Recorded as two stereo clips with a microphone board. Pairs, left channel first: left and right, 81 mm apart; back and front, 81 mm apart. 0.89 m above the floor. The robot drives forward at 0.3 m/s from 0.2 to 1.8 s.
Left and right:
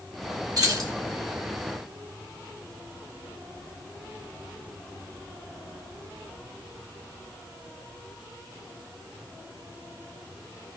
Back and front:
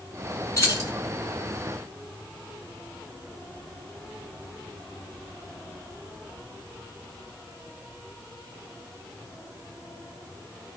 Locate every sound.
0.6 s keys jangling: 130° right, 1.6 m